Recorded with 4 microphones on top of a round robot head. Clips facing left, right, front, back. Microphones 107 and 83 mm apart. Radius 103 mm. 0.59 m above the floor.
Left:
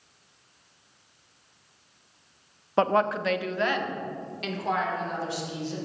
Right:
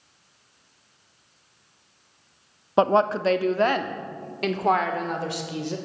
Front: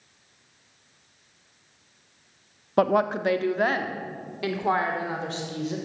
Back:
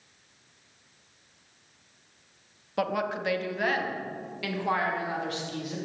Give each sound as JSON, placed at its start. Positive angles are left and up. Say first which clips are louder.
{"t": 2.8, "sound": "a woman speaking", "louder": "right 4 dB, front 7 dB", "azimuth_deg": -25, "distance_m": 0.8}